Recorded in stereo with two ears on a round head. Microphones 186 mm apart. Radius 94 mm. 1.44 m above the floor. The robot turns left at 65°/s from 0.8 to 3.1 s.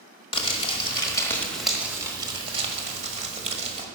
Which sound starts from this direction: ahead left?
Crumpling, at 0.3 s.